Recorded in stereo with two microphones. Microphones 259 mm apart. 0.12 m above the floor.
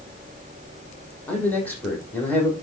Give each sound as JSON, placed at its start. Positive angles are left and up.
{"t": 1.3, "sound": "a man speaking", "side_deg": 5, "distance_m": 4.0}